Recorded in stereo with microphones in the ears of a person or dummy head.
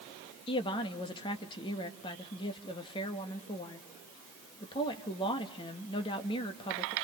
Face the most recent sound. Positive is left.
turn(degrees=25)  # may be behind; listen again after turning